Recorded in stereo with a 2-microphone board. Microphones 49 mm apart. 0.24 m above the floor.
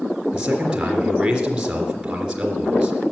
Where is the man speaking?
15° right (ahead or behind), 3.5 m.